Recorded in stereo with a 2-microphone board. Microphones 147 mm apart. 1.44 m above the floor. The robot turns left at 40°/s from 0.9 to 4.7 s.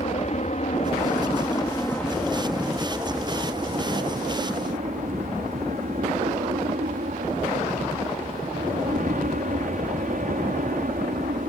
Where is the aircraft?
50° left (ahead or behind); by 11.5 s 65° right (ahead or behind).